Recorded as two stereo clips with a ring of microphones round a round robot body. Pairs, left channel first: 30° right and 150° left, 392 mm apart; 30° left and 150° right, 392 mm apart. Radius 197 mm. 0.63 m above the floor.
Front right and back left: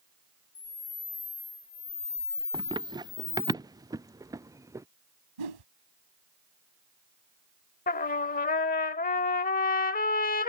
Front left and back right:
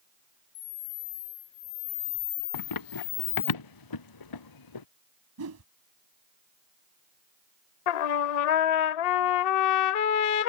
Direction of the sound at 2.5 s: 70° left.